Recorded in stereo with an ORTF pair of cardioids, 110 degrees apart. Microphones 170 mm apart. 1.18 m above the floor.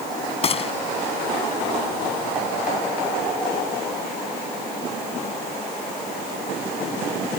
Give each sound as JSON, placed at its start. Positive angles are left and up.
{"t": 0.4, "sound": "a gunshot", "azimuth_deg": 35}